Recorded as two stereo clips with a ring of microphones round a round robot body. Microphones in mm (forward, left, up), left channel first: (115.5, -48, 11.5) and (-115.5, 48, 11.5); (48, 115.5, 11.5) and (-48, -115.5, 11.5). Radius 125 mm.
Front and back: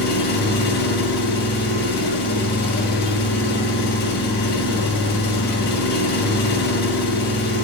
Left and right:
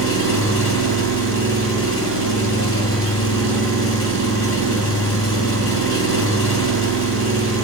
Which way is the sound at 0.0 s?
30° left.